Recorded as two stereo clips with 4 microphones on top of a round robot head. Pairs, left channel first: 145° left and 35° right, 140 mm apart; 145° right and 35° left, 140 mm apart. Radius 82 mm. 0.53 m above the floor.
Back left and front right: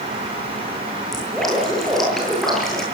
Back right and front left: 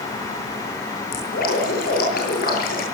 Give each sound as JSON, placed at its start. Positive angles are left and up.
{"t": 1.1, "sound": "dripping", "azimuth_deg": -125, "distance_m": 9.5}